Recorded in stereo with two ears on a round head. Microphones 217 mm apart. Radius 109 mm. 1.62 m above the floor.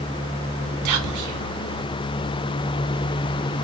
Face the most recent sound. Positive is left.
turn(degrees=-85)